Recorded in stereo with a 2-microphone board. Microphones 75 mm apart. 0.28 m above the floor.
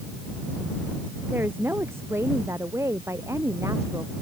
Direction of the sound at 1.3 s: 30° right (ahead or behind).